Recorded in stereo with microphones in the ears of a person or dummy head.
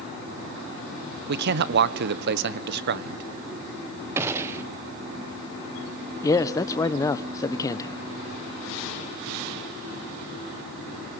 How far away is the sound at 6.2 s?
About 1.1 m.